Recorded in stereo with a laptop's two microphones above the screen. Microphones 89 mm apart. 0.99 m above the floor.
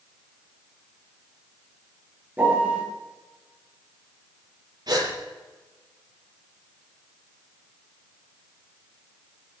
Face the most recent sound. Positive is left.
turn(degrees=-50)  # may be behind; listen again after turning